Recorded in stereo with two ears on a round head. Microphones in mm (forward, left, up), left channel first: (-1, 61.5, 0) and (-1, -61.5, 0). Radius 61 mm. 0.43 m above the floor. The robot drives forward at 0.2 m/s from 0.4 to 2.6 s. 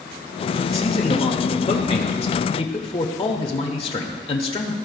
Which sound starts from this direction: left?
A man speaking, at 0.7 s.